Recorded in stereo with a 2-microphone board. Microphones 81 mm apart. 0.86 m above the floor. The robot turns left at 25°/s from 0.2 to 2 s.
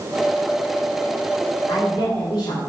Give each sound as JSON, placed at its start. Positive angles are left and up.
{"t": 1.7, "sound": "a woman speaking", "side_deg": 40, "distance_m": 2.5}